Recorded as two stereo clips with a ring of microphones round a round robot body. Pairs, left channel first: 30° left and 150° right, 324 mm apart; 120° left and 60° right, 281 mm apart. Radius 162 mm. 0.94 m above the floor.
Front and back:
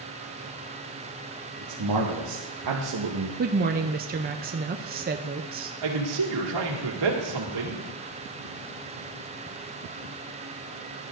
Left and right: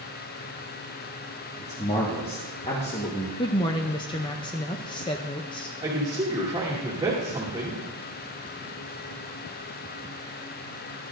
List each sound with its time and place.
1.6 s a man speaking: 170° right, 1.7 m
3.4 s a woman speaking: straight behind, 0.5 m
5.8 s a man speaking: 140° right, 2 m